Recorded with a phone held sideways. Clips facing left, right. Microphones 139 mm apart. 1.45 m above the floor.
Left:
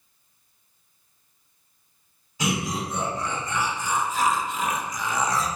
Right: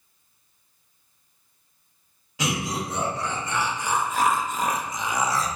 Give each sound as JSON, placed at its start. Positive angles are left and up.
{"t": 2.4, "sound": "laughter", "side_deg": -85, "distance_m": 1.5}